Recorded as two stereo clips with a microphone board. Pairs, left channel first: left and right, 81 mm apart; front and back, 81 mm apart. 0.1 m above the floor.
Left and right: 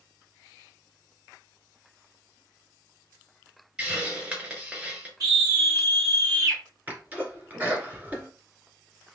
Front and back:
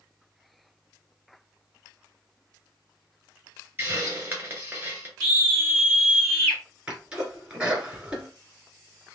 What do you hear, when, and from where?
3.8 s a hiss: 150° right, 1.8 m
5.2 s a scream: 75° right, 2.5 m
6.9 s a sneeze: 120° right, 1.8 m